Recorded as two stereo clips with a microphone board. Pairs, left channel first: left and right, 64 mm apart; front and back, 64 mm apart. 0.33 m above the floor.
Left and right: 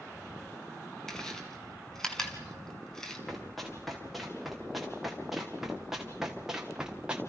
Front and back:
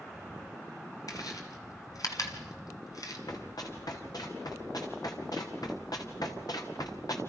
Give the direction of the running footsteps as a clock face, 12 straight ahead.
12 o'clock.